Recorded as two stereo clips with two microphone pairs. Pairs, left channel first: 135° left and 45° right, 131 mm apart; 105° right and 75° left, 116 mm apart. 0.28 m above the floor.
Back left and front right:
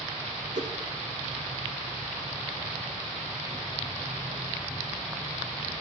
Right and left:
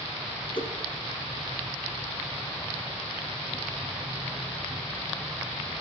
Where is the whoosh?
60° right, 1.8 m.